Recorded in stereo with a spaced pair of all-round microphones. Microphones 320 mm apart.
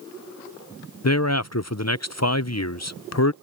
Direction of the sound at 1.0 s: 55° left (ahead or behind).